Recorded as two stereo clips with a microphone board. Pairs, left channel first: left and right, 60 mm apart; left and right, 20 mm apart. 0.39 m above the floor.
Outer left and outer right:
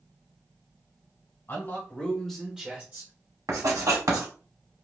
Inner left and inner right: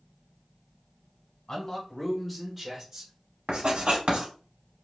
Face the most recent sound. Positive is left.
turn(degrees=-75)  # may be behind; listen again after turning